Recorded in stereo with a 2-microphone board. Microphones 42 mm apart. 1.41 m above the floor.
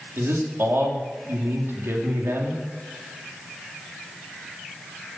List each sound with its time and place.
0.2 s a man speaking: 70° right (ahead or behind), 3.5 m